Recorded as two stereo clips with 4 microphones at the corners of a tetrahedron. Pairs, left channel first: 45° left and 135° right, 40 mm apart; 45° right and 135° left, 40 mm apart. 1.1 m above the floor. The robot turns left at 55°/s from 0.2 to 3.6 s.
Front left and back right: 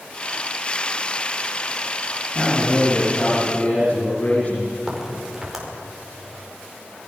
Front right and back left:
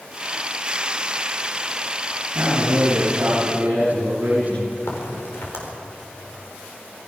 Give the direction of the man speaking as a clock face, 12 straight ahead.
6 o'clock.